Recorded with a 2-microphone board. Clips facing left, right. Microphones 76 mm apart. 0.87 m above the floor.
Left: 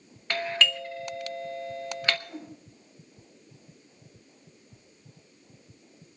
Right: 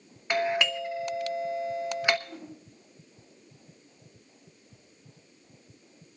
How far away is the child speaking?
I don't hear a child speaking.